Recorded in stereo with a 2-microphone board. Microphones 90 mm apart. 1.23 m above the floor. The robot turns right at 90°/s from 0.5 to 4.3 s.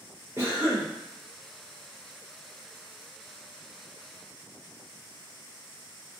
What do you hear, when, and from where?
0.4 s a cough: 35° right, 0.6 m; by 0.9 s straight ahead, 0.6 m